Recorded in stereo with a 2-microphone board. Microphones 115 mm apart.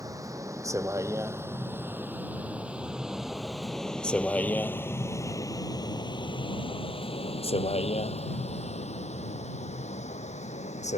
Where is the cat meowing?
No cat meowing in this recording.